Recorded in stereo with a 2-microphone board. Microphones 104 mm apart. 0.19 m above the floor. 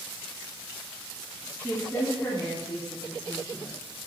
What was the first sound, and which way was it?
A woman speaking, 20° left (ahead or behind).